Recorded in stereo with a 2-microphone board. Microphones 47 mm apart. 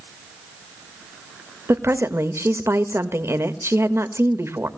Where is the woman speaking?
70° right (ahead or behind), 1.6 m.